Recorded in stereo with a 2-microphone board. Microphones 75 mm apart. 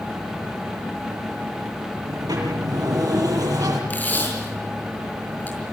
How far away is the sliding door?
About 7.5 m.